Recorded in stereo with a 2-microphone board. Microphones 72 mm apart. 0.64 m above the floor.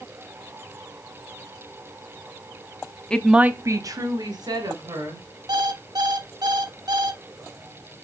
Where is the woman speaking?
15° left (ahead or behind), 0.8 m; by 5.2 s 80° right, 3 m.